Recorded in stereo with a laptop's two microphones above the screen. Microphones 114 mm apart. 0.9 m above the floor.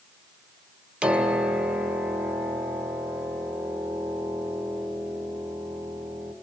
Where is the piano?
10° right (ahead or behind), 3 m.